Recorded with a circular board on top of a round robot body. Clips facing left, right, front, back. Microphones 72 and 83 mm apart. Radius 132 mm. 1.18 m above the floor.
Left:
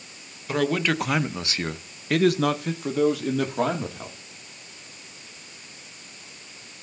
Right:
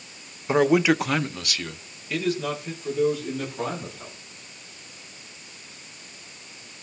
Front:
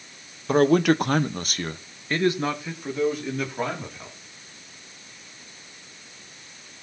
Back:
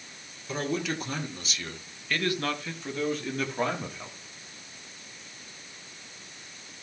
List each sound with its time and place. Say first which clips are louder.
0.5 s a man speaking: right 5 dB, front 13 dB; 25° right, 1.2 m; by 4.2 s 90° left, 3 m